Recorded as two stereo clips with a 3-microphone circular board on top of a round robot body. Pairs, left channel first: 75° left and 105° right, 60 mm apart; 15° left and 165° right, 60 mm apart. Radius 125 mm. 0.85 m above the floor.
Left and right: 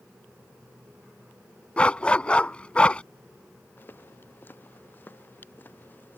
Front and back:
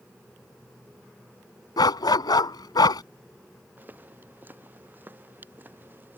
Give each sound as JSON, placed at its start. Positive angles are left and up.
{"t": 1.8, "sound": "a dog barking", "azimuth_deg": 5}
{"t": 3.8, "sound": "footsteps", "azimuth_deg": 135}